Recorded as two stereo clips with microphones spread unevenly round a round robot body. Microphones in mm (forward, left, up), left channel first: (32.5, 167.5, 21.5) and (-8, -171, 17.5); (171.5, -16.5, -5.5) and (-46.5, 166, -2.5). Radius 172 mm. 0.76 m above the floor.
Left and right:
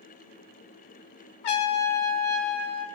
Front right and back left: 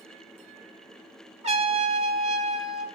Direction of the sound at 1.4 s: 70° left.